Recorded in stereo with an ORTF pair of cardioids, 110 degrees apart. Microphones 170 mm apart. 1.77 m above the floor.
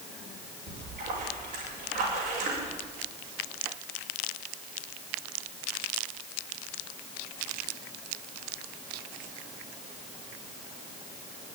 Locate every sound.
0.7 s a splash: 65° right, 6 m